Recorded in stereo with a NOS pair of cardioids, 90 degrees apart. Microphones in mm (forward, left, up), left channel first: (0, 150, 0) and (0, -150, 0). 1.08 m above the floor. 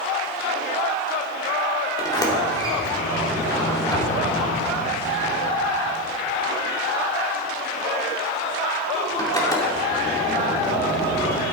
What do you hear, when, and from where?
2.0 s a sliding door: 10° left, 2.5 m